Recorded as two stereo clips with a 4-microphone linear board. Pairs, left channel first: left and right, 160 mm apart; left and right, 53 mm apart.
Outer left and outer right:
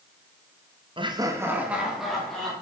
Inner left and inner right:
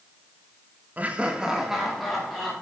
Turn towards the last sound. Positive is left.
turn(degrees=5)  # may be behind; listen again after turning